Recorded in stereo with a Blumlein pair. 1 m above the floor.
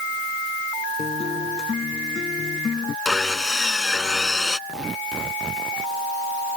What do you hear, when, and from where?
1.0 s a guitar: 20° left
3.0 s sawing: 10° left
4.7 s tearing paper: 15° right